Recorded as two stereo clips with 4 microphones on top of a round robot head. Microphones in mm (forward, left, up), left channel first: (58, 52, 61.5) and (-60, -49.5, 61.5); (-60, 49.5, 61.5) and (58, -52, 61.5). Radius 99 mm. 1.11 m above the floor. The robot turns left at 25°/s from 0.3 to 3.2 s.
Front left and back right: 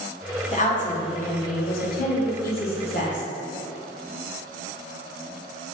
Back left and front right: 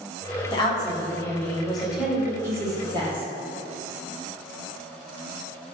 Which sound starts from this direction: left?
A woman speaking, at 0.5 s.